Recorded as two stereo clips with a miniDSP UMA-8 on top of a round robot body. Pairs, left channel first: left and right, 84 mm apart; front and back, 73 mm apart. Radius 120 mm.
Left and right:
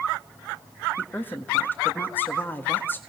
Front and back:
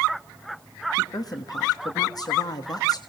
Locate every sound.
1.0 s a woman speaking: 25° left, 1.8 m